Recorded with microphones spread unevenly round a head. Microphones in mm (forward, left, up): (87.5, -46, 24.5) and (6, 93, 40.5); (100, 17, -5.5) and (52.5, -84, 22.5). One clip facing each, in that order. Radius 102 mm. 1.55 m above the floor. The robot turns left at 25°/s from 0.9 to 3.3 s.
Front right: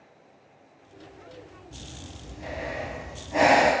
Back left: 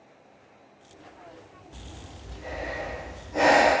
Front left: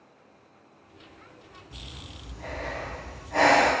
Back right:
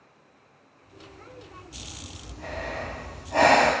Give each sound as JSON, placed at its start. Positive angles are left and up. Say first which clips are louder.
{"t": 1.7, "sound": "breathing", "louder": "even, back right 2 dB", "azimuth_deg": -15, "distance_m": 0.9}